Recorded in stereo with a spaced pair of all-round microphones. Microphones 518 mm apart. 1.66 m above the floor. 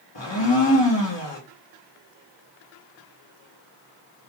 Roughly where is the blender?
Left.